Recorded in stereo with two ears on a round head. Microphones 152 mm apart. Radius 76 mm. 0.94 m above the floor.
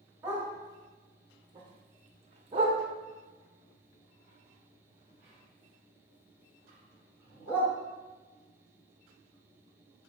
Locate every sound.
0.2 s a dog barking: 15° right (ahead or behind), 1.3 m; by 7.7 s 5° right (ahead or behind), 3 m